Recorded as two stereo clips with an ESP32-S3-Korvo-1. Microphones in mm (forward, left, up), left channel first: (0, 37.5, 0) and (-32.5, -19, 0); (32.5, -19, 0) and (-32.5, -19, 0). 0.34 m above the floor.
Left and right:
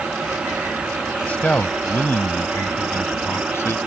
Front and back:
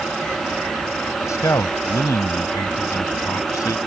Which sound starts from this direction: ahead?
A man speaking, at 1.3 s.